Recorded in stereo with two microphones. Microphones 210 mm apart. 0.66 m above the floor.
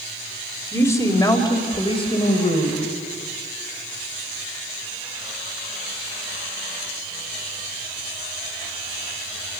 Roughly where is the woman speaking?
Centre.